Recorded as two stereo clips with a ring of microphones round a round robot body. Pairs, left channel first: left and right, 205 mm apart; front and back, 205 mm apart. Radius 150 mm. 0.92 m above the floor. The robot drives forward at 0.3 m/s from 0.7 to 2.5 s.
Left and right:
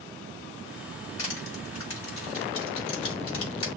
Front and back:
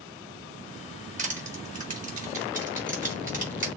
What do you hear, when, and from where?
1.2 s crushing: 125° left, 6 m; by 3.7 s 130° left, 6.5 m